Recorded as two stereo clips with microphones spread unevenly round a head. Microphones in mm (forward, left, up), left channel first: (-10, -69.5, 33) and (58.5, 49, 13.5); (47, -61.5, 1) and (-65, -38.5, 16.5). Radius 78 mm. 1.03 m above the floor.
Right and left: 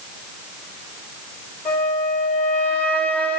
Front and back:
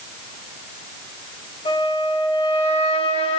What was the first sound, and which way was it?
A flute, 40° right.